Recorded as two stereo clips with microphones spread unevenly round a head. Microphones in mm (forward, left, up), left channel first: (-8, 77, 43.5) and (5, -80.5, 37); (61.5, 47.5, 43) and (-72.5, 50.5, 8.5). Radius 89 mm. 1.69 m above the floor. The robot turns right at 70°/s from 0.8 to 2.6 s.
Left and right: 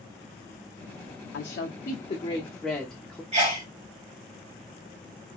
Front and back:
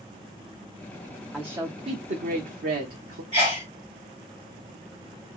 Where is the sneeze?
130° right, 1.8 m.